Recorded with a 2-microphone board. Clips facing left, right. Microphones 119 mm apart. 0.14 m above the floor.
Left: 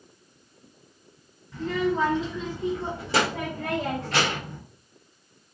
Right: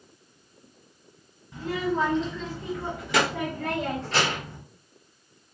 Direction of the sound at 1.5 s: 15° right (ahead or behind).